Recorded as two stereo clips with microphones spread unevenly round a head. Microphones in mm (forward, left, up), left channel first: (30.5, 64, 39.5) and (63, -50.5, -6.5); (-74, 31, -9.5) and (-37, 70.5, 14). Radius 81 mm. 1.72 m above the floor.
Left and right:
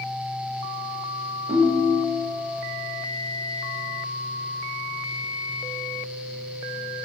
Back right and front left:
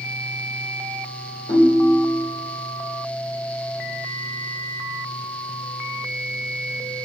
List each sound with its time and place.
1.5 s a ringtone: 130° right, 1.2 m